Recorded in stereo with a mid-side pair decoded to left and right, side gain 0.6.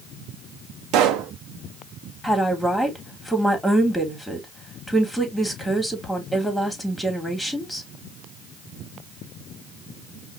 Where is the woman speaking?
Straight ahead, 2.5 m.